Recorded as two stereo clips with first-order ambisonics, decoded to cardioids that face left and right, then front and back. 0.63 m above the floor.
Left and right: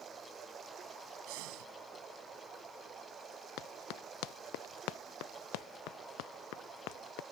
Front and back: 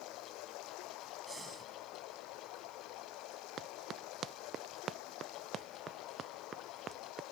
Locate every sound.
0.0 s running water: 25° right
1.3 s breathing: 100° right
3.6 s running footsteps: 120° left; by 7.2 s 110° left